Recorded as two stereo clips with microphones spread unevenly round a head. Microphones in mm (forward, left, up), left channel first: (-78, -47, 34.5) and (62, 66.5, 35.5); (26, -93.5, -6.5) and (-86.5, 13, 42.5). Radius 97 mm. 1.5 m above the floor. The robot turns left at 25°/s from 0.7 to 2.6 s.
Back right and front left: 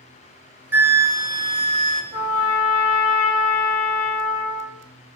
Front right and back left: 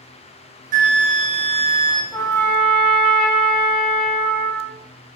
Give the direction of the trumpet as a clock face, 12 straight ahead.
4 o'clock.